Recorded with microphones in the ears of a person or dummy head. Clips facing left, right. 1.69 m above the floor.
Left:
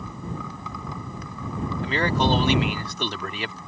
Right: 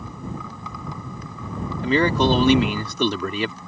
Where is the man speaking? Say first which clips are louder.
Right 5 dB; 80° right.